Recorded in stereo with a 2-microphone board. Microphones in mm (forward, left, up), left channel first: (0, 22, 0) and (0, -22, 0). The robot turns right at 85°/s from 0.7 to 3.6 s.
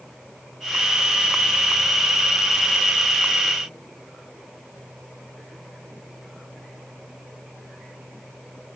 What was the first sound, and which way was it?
Only background noise.